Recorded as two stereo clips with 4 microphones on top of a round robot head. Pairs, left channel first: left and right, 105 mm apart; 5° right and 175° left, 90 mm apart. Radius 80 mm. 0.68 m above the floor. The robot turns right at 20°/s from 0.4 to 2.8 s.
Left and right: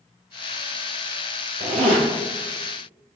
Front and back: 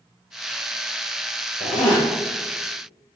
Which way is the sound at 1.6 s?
45° right.